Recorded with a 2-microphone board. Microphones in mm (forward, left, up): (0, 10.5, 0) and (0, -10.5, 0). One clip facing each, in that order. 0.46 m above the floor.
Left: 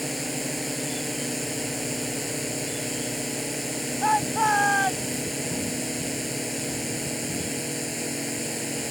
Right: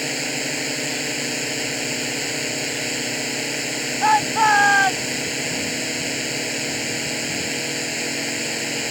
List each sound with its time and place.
0.0 s a drone: 35° right (ahead or behind)
4.0 s a shout: 35° right (ahead or behind)